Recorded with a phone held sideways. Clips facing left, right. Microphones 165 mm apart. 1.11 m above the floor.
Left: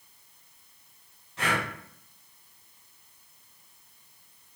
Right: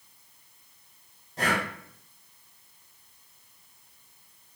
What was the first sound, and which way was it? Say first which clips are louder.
Breathing: right 2 dB; 40° right (ahead or behind).